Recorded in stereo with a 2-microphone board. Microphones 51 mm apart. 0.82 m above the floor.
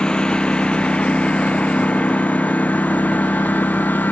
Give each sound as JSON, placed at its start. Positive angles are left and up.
{"t": 0.0, "sound": "a lawn mower", "side_deg": 20}